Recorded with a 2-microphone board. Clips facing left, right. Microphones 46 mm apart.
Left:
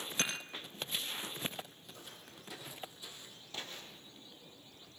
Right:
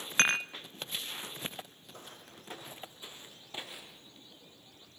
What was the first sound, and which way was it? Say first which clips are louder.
Dishes clattering: right 11 dB; 55° right (ahead or behind).